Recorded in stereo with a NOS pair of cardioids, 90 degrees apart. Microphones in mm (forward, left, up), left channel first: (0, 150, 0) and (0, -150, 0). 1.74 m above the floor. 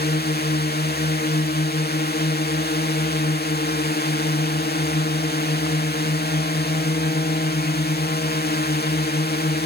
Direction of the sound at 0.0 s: 35° left.